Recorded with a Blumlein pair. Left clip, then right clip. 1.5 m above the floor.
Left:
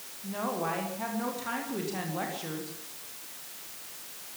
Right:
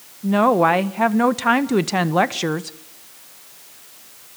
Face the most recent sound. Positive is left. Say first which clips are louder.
# right 17 dB
turn(degrees=-40)